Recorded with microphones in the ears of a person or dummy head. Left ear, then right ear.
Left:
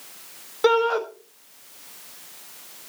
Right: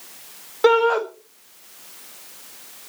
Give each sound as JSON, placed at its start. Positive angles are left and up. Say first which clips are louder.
{"t": 0.6, "sound": "a shout", "louder": "right 3 dB", "side_deg": -15, "distance_m": 1.6}